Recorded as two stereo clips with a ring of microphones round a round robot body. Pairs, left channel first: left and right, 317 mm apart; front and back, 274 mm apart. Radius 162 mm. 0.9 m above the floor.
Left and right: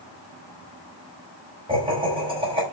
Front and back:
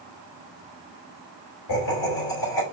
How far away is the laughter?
About 4.5 m.